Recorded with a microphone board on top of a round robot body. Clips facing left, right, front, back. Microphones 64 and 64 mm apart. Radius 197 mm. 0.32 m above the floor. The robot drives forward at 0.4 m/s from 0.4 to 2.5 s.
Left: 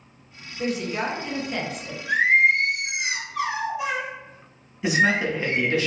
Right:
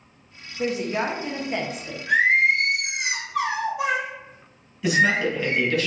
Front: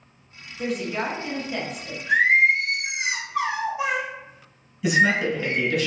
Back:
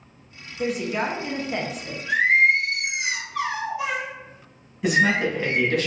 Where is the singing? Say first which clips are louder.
Even, even; 55° right, 1.0 m; by 5.8 s 65° right, 1.0 m.